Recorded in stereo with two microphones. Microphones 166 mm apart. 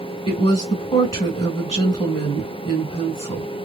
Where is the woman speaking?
35° left (ahead or behind), 1.8 m.